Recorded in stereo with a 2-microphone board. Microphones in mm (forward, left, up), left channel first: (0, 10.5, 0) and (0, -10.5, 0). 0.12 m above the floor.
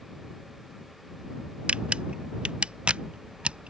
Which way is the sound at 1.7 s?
80° right.